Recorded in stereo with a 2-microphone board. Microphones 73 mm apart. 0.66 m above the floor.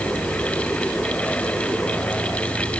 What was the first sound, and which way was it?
Only background noise.